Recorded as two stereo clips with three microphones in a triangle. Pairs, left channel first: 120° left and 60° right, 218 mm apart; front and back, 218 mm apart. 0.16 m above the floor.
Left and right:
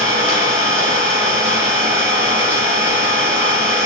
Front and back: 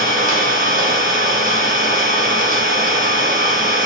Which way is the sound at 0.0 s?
135° right.